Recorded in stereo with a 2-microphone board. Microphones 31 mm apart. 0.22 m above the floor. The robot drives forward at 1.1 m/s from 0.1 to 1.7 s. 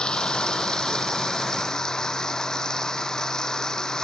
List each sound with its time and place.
0.0 s running water: 25° left (ahead or behind); by 4.0 s 20° left (ahead or behind)